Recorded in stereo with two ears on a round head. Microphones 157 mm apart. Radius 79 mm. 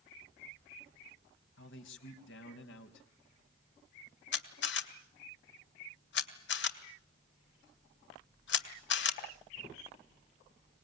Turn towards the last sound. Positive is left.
turn(degrees=70)  # may be behind; listen again after turning